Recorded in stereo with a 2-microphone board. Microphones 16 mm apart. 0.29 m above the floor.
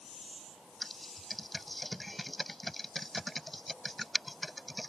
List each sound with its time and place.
0.8 s typing on a keyboard: 10° left (ahead or behind)